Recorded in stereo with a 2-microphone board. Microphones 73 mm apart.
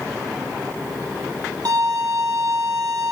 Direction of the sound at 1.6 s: 70° right (ahead or behind).